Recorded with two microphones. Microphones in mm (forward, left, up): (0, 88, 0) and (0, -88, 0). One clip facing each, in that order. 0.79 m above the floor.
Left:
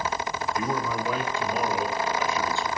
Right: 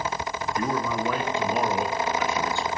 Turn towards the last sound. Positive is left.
turn(degrees=-75)  # may be behind; listen again after turning